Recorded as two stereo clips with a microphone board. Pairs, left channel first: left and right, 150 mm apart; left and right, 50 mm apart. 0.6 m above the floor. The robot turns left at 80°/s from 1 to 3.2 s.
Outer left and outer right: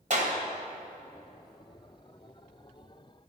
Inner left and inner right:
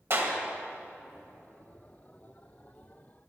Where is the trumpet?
No trumpet in this recording.